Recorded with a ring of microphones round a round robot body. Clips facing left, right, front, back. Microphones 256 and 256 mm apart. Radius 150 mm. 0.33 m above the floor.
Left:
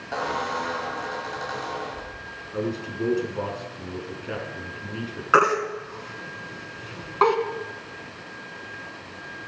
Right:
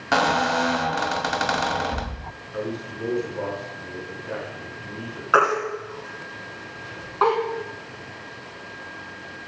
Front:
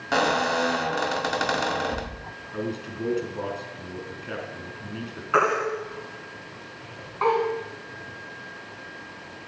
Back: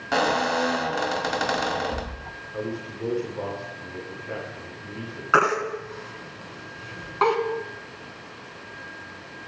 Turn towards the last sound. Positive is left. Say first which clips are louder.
# even, even
turn(degrees=145)